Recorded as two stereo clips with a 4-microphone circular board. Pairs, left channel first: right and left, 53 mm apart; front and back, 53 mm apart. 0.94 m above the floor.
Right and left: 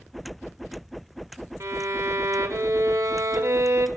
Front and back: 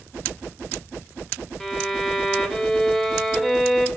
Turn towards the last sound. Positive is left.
turn(degrees=85)